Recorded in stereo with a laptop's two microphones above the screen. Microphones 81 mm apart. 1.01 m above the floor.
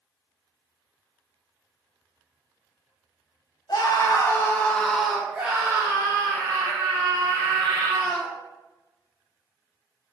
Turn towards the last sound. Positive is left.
turn(degrees=-50)  # may be behind; listen again after turning